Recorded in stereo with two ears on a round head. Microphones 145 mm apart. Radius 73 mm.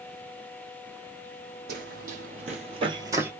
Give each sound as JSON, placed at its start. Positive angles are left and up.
{"t": 1.7, "sound": "running footsteps", "side_deg": -60, "distance_m": 1.9}